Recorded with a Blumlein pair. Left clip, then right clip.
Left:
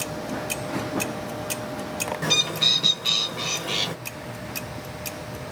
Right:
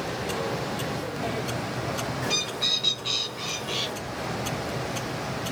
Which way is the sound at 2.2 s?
25° left.